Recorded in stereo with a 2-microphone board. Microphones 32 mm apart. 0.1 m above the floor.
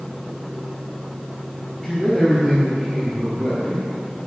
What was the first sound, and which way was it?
A man speaking, 10° left (ahead or behind).